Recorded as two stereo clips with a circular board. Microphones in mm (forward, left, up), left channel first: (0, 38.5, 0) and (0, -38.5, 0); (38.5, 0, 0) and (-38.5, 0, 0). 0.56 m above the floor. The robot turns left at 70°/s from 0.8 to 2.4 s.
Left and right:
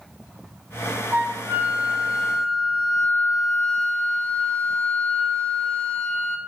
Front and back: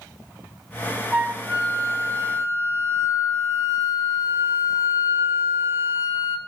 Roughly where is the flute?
Right.